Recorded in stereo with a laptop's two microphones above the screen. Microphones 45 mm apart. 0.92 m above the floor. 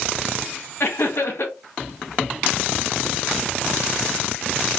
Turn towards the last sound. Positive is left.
turn(degrees=60)  # may be behind; listen again after turning